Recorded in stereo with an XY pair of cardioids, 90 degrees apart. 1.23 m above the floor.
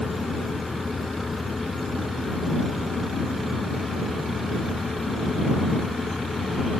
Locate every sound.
0.0 s a fan: 20° left